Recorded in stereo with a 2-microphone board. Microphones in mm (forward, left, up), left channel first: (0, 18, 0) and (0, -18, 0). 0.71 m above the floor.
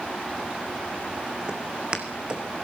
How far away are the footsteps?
About 2.5 m.